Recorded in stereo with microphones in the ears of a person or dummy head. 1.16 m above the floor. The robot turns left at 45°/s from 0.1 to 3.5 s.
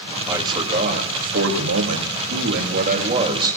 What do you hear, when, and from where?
0.3 s a man speaking: 15° right, 2.5 m; by 3.6 s 165° right, 2.5 m